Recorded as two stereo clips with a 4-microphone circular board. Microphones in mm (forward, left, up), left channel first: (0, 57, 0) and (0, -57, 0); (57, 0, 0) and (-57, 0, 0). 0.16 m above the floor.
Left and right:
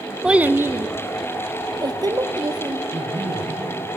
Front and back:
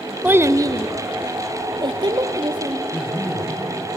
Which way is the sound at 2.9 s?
75° right.